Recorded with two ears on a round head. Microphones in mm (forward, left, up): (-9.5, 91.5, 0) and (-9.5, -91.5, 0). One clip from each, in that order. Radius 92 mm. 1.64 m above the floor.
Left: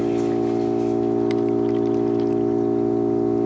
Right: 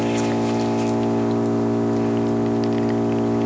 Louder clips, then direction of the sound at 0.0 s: Even; 70° right (ahead or behind).